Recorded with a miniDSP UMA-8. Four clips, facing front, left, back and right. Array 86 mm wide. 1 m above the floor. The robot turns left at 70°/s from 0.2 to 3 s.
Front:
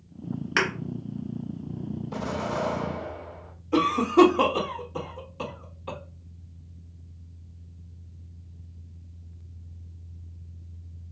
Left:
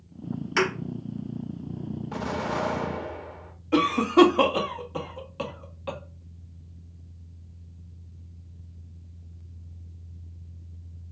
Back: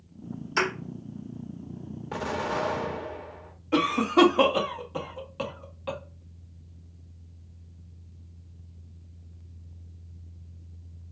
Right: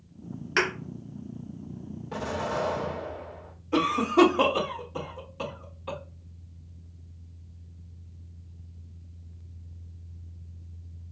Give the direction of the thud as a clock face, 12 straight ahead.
12 o'clock.